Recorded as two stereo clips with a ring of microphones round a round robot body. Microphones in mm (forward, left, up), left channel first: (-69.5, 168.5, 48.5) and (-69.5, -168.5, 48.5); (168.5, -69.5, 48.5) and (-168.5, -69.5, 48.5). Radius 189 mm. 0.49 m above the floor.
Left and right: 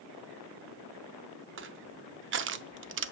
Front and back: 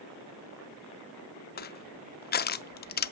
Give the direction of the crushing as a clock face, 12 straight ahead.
2 o'clock.